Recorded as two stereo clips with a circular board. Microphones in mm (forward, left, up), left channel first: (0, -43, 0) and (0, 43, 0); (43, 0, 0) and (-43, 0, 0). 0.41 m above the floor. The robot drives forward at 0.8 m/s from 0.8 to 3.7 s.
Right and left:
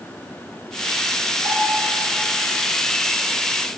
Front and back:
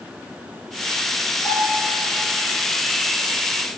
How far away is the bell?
About 3 m.